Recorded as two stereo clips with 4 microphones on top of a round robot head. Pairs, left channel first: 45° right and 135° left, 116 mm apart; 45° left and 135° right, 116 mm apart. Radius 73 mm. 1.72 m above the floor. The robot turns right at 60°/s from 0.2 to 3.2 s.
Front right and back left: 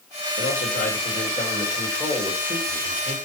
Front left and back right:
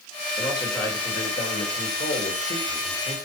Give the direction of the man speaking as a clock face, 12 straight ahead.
2 o'clock.